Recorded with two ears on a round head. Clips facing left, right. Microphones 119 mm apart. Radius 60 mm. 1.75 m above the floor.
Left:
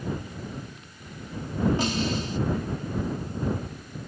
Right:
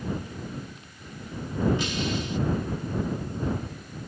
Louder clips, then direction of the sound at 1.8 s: Left 2 dB; 35° left (ahead or behind).